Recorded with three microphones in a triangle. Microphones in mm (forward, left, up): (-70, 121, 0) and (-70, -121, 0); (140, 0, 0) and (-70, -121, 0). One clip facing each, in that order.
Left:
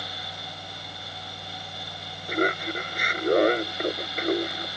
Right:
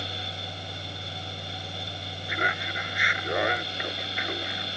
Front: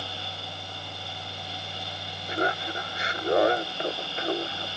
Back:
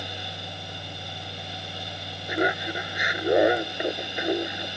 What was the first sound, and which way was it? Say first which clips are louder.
Laughter: left 9 dB, back 3 dB; 135° left.